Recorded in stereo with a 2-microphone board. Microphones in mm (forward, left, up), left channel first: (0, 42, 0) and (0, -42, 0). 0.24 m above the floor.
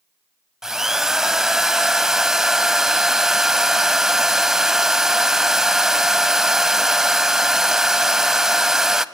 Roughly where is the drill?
Centre.